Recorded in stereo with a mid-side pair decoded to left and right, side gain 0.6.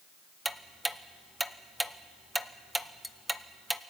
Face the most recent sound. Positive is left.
turn(degrees=-5)